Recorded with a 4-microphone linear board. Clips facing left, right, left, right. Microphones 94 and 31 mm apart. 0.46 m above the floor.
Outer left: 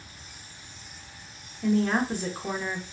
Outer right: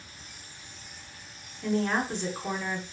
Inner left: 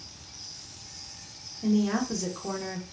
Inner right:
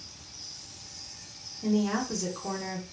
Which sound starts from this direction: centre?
A woman speaking, at 1.6 s.